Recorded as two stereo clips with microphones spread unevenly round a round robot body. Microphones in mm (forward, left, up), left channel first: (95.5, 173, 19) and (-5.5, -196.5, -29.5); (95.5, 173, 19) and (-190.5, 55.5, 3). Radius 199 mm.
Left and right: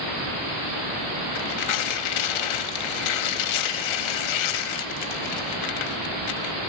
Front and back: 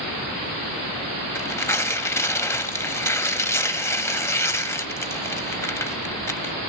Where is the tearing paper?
105° left, 1.0 m.